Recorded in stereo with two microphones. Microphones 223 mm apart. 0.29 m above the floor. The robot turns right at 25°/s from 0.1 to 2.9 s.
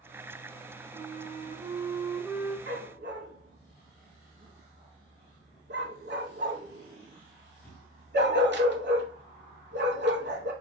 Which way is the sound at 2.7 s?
55° right (ahead or behind).